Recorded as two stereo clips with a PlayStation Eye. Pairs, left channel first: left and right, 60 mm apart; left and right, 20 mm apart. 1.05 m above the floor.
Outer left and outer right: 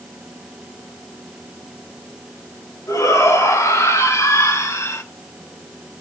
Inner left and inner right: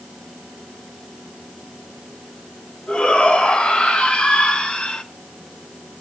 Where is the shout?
70° left (ahead or behind), 5 m; by 5.0 s 55° left (ahead or behind), 3 m.